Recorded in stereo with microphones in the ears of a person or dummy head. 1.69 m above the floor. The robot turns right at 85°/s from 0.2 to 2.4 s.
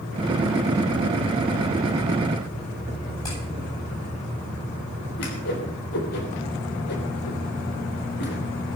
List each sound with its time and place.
3.2 s hammering: 30° left (ahead or behind), 9 m
5.2 s a whoosh: 65° left (ahead or behind), 3.5 m